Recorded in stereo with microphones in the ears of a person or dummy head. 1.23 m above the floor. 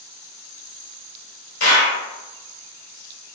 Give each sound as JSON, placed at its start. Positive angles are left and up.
{"t": 1.6, "sound": "a clap", "side_deg": 70, "distance_m": 2.0}